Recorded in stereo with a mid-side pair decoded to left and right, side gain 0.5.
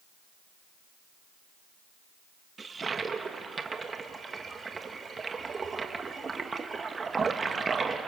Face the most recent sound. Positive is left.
turn(degrees=-30)